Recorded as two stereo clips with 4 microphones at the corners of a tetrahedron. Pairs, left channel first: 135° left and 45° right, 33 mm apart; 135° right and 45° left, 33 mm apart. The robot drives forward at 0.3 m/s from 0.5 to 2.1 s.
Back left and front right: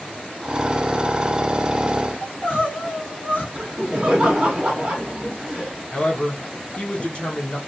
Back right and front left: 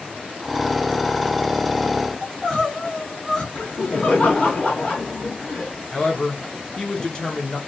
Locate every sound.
2.2 s crying: 160° left, 1.3 m
3.5 s laughter: 125° right, 0.7 m
5.9 s a man speaking: 170° left, 0.8 m